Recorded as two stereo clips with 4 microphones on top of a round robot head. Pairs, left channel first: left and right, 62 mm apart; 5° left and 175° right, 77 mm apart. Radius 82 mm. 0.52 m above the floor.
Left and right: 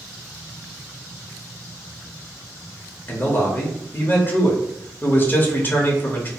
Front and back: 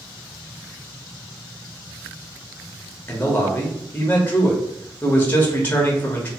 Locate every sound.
3.1 s a man speaking: 55° left, 0.9 m